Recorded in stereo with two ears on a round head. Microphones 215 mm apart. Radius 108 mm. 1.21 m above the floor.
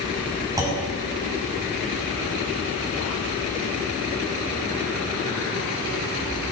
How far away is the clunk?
About 7.5 m.